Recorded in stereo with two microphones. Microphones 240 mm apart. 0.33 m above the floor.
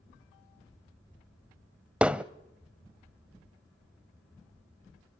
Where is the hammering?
5° right (ahead or behind), 0.6 m.